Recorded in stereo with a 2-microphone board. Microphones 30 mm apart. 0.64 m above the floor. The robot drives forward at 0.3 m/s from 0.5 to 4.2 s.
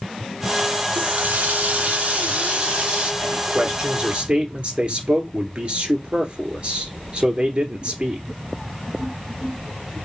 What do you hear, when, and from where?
0.9 s a running tap: 65° right (ahead or behind), 0.7 m; by 3.1 s 45° right (ahead or behind), 0.9 m
3.2 s a man speaking: 40° right (ahead or behind), 1.8 m; by 8.2 s 45° right (ahead or behind), 1.7 m